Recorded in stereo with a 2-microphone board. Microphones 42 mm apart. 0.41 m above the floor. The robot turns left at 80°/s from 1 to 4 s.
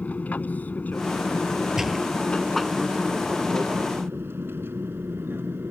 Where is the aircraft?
35° left (ahead or behind); by 5.7 s 60° right (ahead or behind).